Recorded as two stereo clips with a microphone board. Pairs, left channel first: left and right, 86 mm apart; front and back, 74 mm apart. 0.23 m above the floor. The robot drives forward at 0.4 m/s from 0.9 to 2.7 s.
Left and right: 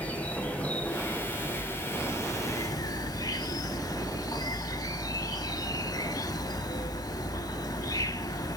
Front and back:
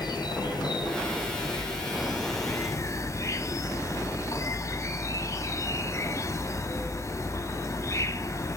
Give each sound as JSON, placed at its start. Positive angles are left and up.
{"t": 0.0, "sound": "an insect", "azimuth_deg": 20, "distance_m": 1.1}